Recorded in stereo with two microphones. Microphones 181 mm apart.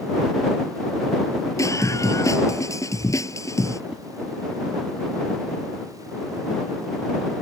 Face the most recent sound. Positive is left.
turn(degrees=-5)  # may be behind; listen again after turning